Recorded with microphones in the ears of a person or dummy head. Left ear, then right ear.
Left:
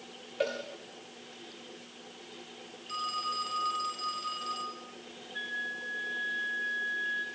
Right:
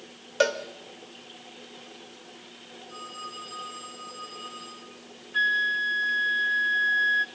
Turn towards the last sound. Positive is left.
turn(degrees=-40)  # may be behind; listen again after turning